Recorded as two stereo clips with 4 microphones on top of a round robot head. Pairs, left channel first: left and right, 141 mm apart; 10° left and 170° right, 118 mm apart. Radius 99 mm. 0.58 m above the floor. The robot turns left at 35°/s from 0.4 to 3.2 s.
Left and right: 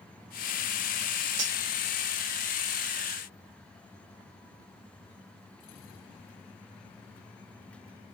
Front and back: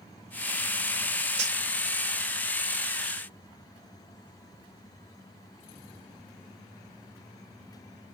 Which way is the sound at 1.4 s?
130° right.